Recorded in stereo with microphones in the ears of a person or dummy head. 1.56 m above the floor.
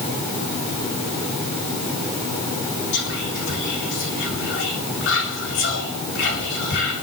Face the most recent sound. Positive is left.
turn(degrees=60)  # may be behind; listen again after turning